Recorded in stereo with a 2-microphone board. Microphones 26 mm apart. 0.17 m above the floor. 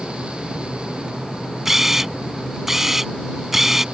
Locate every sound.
1.6 s a camera shutter: 15° right (ahead or behind)